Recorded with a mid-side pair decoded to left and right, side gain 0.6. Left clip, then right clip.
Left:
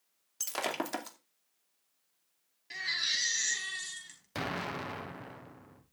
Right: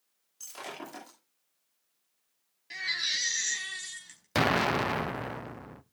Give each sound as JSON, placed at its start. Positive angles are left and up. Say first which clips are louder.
{"t": 0.4, "sound": "breaking glass", "louder": "left 7 dB", "azimuth_deg": 55, "distance_m": 2.5}
{"t": 2.7, "sound": "a baby crying", "louder": "right 1 dB", "azimuth_deg": -5, "distance_m": 4.5}
{"t": 4.3, "sound": "an explosion", "louder": "right 11 dB", "azimuth_deg": -50, "distance_m": 0.7}